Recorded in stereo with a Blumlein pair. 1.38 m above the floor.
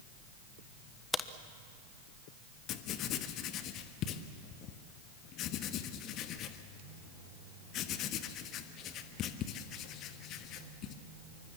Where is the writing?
35° left, 1.3 m.